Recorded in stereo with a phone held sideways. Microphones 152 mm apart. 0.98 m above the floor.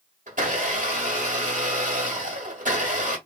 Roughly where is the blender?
Right.